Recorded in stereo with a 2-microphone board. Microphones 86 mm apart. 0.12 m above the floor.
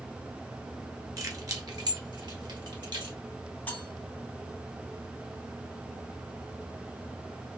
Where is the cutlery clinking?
20° left (ahead or behind), 1.0 m.